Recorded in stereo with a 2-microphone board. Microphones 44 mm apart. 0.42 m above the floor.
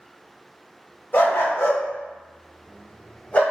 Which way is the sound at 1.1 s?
50° left (ahead or behind).